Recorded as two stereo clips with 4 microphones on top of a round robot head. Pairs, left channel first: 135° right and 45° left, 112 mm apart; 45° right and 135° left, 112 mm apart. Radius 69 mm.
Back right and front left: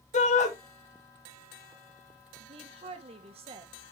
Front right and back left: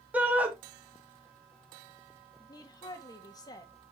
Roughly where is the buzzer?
No buzzer in this recording.